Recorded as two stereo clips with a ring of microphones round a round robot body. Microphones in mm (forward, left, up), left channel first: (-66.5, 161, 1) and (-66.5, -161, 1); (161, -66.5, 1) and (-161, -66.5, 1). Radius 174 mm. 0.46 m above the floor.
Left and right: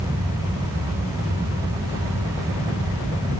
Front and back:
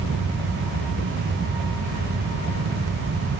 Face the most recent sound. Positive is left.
No sound to turn to.